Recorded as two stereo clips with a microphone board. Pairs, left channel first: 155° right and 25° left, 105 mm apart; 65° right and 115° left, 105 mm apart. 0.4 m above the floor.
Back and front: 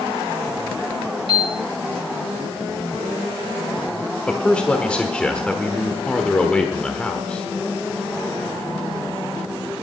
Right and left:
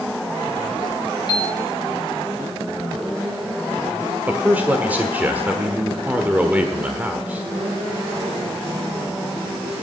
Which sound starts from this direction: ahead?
A piano, at 1.3 s.